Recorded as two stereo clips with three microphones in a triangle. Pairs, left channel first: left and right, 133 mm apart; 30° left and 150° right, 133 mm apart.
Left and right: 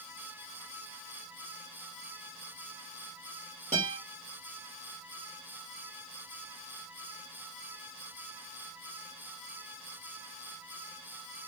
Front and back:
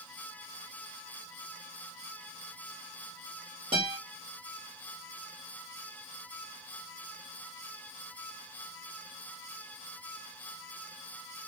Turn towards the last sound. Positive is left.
turn(degrees=-105)